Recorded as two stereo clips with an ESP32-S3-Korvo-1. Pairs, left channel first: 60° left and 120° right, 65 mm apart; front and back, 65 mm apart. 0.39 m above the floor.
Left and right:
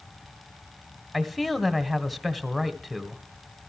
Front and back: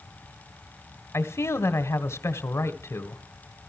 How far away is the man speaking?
About 1.9 m.